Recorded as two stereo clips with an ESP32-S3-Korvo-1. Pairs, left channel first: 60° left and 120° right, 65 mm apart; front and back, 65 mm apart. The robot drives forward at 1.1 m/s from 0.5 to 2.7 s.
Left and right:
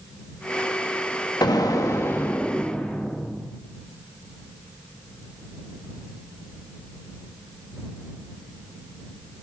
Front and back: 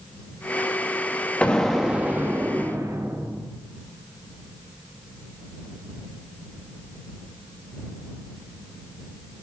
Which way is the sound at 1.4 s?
70° left.